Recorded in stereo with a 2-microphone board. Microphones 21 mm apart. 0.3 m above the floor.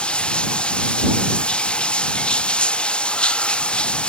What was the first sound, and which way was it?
Running water, 60° left (ahead or behind).